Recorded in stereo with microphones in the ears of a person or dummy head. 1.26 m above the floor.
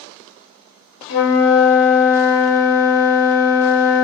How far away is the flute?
About 0.5 m.